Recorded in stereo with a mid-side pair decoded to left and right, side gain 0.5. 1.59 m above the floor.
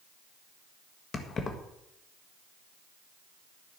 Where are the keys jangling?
45° left, 1.6 m.